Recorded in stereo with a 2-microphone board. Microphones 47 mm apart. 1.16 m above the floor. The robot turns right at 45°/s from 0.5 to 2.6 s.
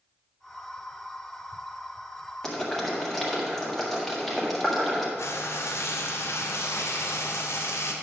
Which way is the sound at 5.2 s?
75° left (ahead or behind).